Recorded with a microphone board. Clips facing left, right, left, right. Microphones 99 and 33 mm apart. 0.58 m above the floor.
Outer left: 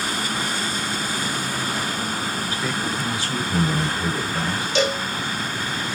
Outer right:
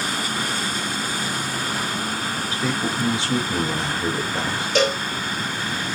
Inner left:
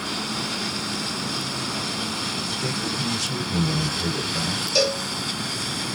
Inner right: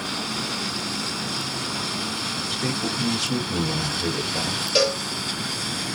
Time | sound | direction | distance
2.5 | a man speaking | 25° right (ahead or behind) | 1.7 m
4.8 | a cowbell | 45° right (ahead or behind) | 1.6 m